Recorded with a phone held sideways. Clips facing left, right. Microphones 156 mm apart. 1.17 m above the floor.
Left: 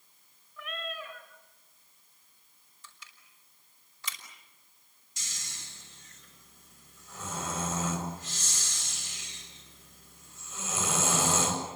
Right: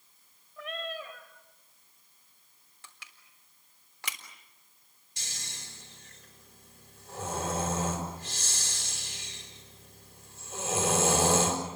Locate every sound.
0.6 s a cat meowing: 35° right (ahead or behind), 3.5 m
2.8 s crushing: 70° right (ahead or behind), 3.5 m
5.2 s snoring: 60° right (ahead or behind), 6.5 m